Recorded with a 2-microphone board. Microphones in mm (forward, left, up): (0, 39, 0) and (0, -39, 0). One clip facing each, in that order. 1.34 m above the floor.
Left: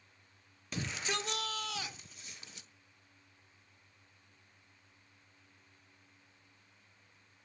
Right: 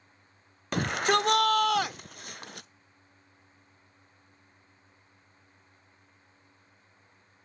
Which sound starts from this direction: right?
A shout, at 0.7 s.